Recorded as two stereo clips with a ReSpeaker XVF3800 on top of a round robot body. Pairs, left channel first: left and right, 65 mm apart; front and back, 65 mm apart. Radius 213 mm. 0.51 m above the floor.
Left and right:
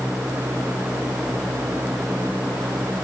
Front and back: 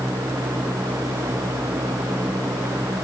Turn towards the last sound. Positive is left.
No sound to turn to.